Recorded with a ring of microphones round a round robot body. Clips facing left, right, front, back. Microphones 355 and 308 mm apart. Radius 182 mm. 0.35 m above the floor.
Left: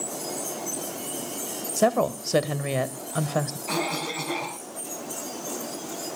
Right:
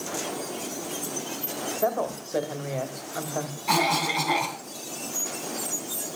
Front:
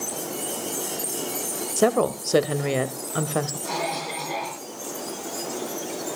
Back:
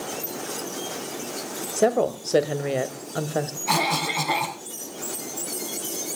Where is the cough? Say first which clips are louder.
Right 2 dB, back 2 dB; 160° right, 3 m.